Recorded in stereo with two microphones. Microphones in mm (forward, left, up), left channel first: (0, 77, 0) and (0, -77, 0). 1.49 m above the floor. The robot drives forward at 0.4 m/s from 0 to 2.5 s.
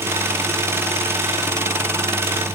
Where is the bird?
I don't hear a bird.